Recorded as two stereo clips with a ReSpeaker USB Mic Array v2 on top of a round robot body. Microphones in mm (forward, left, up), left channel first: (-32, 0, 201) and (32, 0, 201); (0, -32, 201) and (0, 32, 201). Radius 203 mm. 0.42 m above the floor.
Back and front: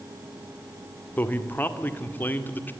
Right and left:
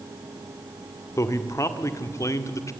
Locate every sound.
1.2 s a man speaking: 120° right, 2.5 m